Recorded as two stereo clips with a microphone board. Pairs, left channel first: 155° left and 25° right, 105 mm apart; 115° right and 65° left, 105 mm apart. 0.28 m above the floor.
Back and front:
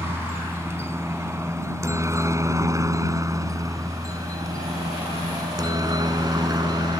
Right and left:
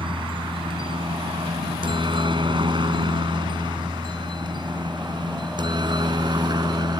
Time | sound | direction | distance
0.0 | a helicopter | 40° left | ?